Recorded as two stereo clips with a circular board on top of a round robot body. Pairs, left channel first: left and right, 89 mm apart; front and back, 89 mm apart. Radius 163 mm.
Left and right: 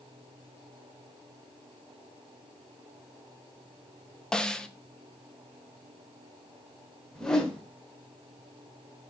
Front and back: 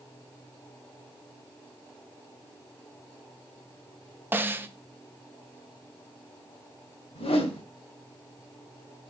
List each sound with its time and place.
4.3 s a snare drum: 160° left, 1.2 m
7.2 s a whoosh: 5° left, 1.5 m